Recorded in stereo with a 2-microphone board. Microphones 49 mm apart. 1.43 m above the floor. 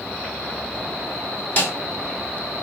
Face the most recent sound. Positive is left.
turn(degrees=35)  # may be behind; listen again after turning